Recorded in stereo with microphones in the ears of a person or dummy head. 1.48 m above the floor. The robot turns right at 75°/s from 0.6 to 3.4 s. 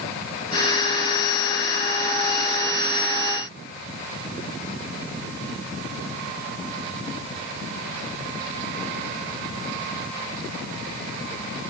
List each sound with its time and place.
Only background noise.